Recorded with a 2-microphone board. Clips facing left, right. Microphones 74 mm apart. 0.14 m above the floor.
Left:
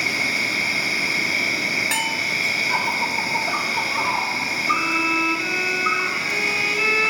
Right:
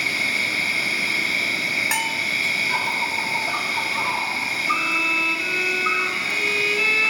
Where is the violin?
15° left (ahead or behind), 1.1 m.